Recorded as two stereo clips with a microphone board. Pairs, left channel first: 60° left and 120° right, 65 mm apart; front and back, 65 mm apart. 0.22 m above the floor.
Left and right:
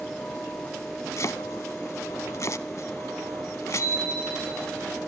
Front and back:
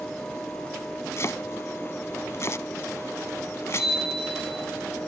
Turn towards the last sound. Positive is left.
turn(degrees=100)